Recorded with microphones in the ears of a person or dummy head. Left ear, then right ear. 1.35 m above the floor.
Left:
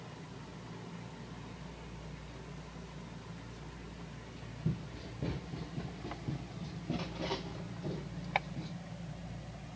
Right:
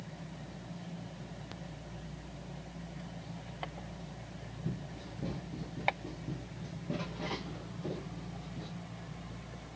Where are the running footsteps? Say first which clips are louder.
Left 2 dB; 35° left (ahead or behind), 1.5 m; by 8.7 s 5° left (ahead or behind), 3 m.